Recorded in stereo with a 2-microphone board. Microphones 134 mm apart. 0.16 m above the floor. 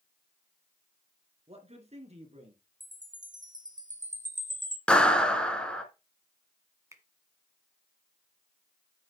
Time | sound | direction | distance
1.5 | a man speaking | 50° right (ahead or behind) | 2.5 m
2.8 | a chime | 70° right (ahead or behind) | 1.6 m
4.9 | a clap | 10° left (ahead or behind) | 2.0 m
6.9 | a finger snap | 25° right (ahead or behind) | 1.4 m